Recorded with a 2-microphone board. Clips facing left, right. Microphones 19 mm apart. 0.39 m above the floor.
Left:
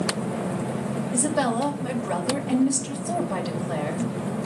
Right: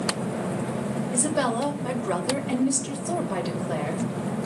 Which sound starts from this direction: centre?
A woman speaking, at 1.1 s.